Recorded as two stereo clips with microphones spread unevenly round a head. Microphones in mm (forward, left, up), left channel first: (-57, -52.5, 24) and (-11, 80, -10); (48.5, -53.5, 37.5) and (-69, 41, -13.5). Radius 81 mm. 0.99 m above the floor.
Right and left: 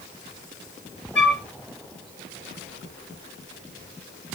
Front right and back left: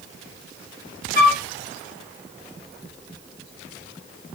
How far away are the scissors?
I don't hear scissors.